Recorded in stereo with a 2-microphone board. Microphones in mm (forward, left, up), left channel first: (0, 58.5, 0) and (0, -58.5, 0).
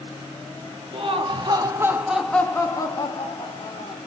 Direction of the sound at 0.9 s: 50° right (ahead or behind).